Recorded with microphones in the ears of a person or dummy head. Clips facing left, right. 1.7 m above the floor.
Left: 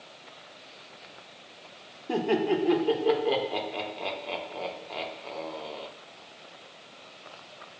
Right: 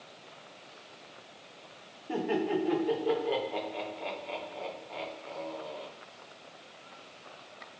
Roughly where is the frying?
No frying in this recording.